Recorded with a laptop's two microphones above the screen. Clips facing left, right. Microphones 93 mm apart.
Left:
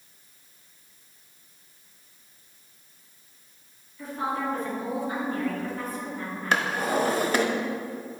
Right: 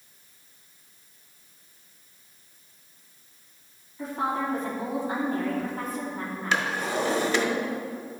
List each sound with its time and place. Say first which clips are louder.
4.0 s a woman speaking: right 1 dB; 30° right (ahead or behind), 2.5 m
6.5 s a drawer: left 2 dB; 40° left (ahead or behind), 0.9 m